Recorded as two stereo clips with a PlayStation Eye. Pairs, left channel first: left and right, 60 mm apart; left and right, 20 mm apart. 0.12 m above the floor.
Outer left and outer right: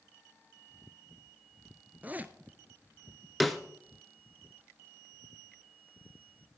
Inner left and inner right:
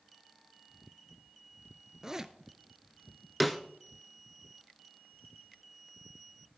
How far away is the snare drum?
About 0.9 m.